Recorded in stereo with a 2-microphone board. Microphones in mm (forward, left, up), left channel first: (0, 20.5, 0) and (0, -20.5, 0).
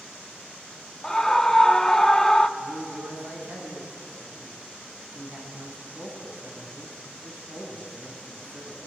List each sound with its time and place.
1.0 s a scream: 15° left (ahead or behind), 0.6 m
2.6 s a man speaking: 50° right (ahead or behind), 5.5 m